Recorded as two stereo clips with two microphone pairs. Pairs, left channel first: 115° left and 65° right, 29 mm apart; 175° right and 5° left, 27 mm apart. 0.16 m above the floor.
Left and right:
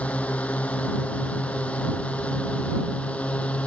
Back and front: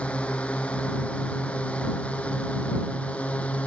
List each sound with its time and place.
0.0 s a drone: 150° left; by 3.7 s 155° left